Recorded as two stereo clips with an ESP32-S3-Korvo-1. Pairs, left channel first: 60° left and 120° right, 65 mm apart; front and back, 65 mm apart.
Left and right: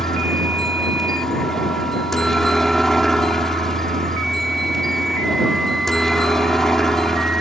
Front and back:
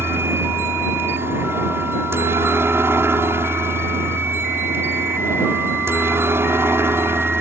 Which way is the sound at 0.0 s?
145° left.